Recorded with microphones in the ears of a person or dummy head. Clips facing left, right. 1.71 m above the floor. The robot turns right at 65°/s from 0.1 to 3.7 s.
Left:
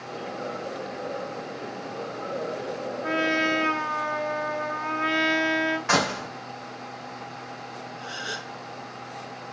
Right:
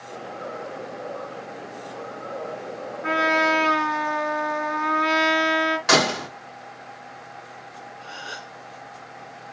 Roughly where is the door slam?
Right.